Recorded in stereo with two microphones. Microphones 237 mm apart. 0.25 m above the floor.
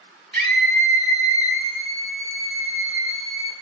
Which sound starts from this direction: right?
A scream, at 0.3 s.